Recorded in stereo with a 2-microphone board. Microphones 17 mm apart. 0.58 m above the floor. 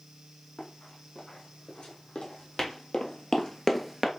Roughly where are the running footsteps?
Left.